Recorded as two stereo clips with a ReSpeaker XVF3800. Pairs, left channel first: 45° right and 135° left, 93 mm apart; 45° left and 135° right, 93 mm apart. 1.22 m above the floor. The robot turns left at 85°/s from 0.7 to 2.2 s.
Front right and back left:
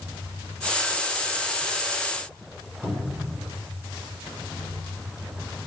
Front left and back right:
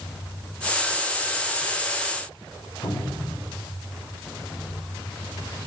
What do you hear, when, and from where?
2.8 s a cupboard door: 65° left, 5 m